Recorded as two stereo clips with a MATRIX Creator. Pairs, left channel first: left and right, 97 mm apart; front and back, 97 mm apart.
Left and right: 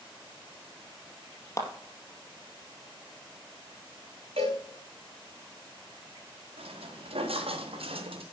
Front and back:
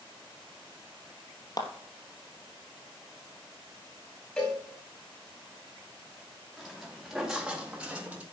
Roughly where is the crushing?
I don't hear crushing.